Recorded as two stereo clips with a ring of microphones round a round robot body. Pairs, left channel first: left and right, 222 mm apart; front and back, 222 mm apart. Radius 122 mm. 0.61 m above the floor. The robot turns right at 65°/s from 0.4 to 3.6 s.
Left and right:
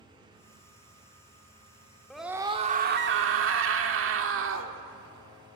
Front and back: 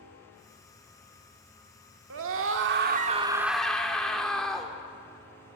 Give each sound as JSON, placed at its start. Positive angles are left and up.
{"t": 2.1, "sound": "a scream", "azimuth_deg": 175, "distance_m": 1.6}